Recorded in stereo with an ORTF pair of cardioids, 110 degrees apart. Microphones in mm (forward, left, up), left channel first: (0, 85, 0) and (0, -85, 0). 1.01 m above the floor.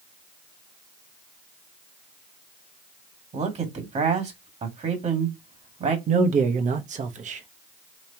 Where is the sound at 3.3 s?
40° right, 1.8 m.